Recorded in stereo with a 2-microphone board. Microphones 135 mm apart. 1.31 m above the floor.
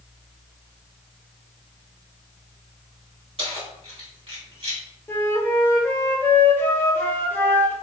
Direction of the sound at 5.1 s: 15° left (ahead or behind).